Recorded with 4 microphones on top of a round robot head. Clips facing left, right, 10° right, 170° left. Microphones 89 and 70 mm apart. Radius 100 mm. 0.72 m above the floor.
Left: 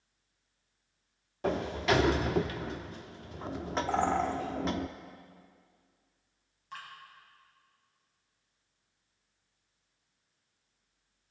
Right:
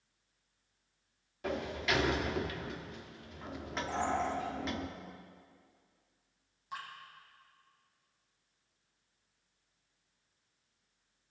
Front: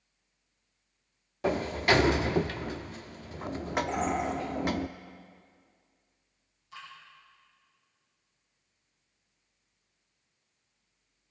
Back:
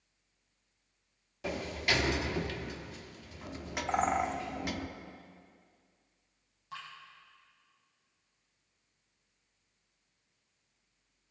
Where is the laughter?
No laughter in this recording.